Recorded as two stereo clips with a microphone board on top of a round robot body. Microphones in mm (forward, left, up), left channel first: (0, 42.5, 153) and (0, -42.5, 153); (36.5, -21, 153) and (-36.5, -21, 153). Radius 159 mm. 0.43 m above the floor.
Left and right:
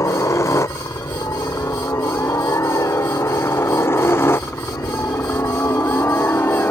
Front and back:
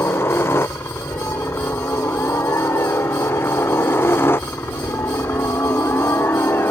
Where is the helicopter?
45° left; by 6.7 s 40° left.